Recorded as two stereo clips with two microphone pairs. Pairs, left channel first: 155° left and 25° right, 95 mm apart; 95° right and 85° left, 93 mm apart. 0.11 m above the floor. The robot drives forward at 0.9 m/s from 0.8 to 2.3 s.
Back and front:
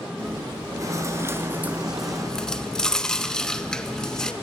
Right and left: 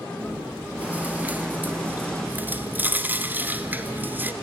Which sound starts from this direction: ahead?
Chewing, at 0.2 s.